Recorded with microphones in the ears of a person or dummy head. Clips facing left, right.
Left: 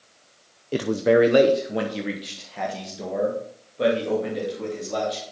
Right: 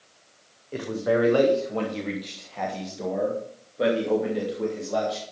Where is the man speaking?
40° left (ahead or behind), 0.7 m; by 5.2 s 5° right (ahead or behind), 3.5 m.